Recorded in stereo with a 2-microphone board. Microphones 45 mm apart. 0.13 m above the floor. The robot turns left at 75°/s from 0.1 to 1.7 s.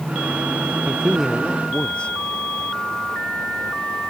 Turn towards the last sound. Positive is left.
turn(degrees=150)